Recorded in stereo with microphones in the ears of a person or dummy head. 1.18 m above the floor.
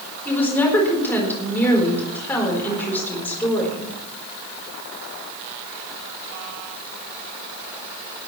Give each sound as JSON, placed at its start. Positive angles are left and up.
{"t": 0.2, "sound": "a woman speaking", "side_deg": 15, "distance_m": 4.0}